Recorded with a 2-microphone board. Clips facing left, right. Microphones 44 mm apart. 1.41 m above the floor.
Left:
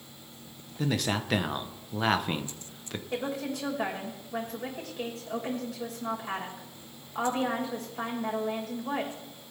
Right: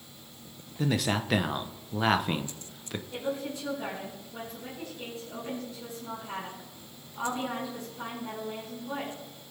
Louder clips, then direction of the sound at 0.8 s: Right 1 dB; centre (ahead or behind).